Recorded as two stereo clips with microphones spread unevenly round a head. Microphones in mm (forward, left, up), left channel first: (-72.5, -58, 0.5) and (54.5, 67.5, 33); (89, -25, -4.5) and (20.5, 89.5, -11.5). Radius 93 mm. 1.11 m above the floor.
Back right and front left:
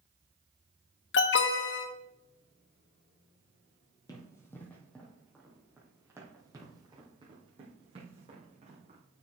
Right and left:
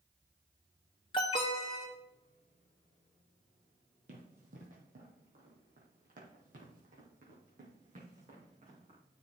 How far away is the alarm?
About 1.0 m.